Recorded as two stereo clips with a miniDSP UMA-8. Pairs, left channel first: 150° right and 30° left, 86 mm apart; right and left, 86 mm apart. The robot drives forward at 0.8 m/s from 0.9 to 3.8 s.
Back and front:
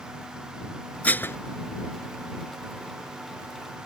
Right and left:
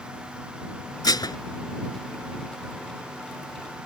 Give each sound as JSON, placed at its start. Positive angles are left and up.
{"t": 1.0, "sound": "dishes clattering", "azimuth_deg": -80}